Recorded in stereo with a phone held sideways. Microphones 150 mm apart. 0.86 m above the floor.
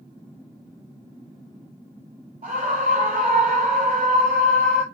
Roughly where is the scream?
Right.